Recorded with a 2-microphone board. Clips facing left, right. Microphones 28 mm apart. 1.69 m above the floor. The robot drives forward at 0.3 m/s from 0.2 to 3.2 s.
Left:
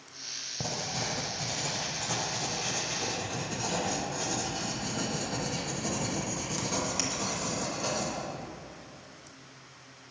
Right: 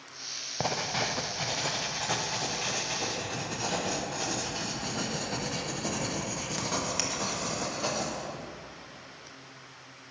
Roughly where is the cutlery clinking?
I don't hear cutlery clinking.